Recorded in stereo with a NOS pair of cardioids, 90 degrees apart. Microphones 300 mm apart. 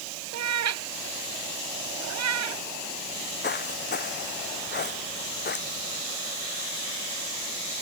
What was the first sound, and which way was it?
A cat meowing, 60° right.